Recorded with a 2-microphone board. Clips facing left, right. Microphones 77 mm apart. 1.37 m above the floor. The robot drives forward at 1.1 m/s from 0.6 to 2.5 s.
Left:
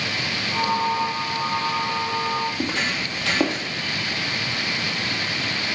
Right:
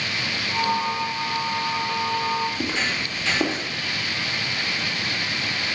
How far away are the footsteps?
About 2 m.